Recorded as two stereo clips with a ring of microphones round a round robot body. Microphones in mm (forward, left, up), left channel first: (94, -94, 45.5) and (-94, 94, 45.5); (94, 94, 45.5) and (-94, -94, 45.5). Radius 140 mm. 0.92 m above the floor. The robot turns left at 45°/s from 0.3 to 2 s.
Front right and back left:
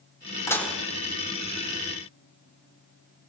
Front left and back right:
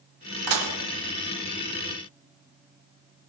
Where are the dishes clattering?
125° right, 1.9 m; by 0.8 s 140° right, 1.9 m.